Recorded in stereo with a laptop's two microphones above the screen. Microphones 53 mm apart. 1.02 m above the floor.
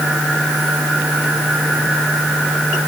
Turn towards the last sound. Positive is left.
No sound to turn to.